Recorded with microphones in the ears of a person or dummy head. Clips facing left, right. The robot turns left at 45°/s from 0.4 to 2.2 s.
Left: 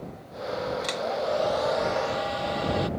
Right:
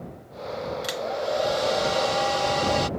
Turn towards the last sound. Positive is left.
turn(degrees=-70)